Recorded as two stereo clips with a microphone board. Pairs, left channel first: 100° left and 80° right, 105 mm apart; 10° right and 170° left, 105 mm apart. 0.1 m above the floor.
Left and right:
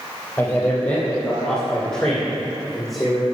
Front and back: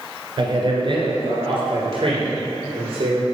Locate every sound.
0.4 s a man speaking: 170° left, 2 m; by 3.2 s 170° right, 3 m